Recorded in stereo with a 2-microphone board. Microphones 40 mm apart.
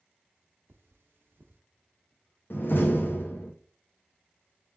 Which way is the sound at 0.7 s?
75° right (ahead or behind).